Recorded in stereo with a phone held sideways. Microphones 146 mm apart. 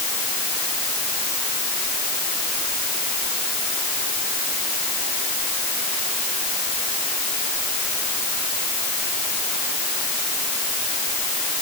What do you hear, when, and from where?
Only background noise.